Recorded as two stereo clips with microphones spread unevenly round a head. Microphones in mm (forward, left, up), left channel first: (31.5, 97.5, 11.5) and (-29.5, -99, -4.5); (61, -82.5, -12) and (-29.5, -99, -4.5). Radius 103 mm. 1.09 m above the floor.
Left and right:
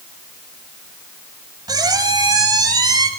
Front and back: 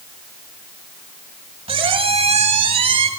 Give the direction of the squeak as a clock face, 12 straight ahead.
6 o'clock.